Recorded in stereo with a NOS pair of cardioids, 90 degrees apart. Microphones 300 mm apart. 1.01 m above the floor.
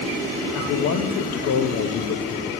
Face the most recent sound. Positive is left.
turn(degrees=60)